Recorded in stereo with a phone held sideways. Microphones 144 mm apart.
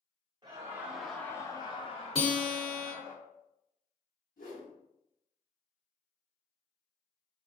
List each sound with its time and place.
0.4 s laughter: 30° right (ahead or behind), 0.7 m; by 3.1 s 60° left (ahead or behind), 1.4 m
2.1 s a guitar: 40° left (ahead or behind), 1.0 m
4.4 s a whoosh: 70° left (ahead or behind), 1.3 m